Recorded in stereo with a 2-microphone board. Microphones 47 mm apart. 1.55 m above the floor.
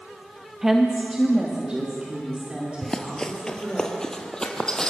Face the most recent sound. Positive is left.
turn(degrees=15)  # may be behind; listen again after turning